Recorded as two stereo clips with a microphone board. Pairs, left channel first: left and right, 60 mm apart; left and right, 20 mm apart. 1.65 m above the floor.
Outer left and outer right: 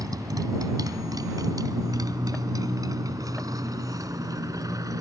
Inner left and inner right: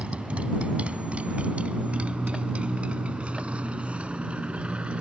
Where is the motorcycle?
75° right (ahead or behind); by 5.0 s 65° right (ahead or behind).